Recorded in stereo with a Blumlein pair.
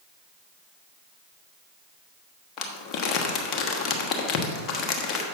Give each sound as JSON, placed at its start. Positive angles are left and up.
{"t": 2.6, "sound": "crumpling", "azimuth_deg": 35, "distance_m": 1.3}